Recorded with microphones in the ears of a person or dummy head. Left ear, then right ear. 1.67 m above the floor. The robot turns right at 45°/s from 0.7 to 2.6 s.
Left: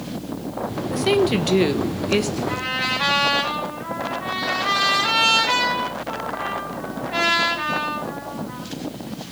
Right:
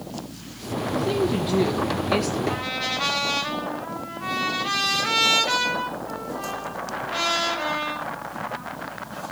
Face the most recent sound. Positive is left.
turn(degrees=5)  # may be behind; listen again after turning